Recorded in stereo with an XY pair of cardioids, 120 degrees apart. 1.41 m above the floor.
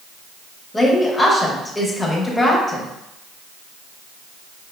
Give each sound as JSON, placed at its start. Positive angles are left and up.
{"t": 0.7, "sound": "a woman speaking", "azimuth_deg": 15, "distance_m": 1.2}